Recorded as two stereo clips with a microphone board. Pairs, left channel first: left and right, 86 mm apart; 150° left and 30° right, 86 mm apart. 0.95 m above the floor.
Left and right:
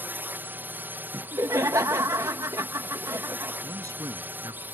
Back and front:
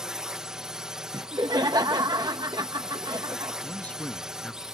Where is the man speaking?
135° right.